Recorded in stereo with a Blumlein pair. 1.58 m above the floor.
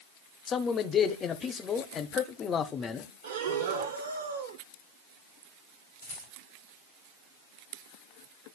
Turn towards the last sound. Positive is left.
turn(degrees=70)